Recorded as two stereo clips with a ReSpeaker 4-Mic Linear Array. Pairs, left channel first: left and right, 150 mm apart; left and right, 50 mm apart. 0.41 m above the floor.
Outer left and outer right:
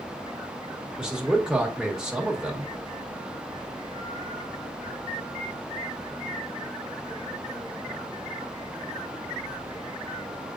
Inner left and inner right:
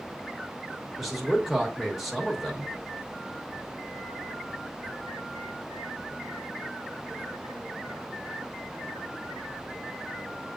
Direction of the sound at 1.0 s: 5° right (ahead or behind).